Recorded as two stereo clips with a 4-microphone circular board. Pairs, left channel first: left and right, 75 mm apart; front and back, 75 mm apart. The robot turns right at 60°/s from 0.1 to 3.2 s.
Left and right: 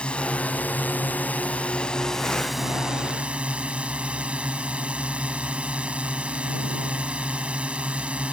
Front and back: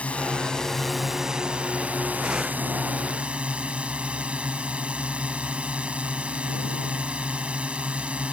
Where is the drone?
40° left; by 8.3 s 135° right.